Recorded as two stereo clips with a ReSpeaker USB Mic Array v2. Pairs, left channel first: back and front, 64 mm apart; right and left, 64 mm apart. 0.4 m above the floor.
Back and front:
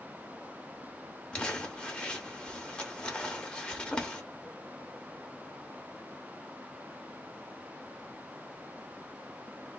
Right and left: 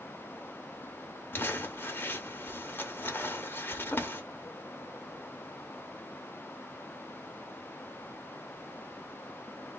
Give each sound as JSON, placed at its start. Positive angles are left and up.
{"t": 1.3, "sound": "crumpling", "azimuth_deg": -115, "distance_m": 0.6}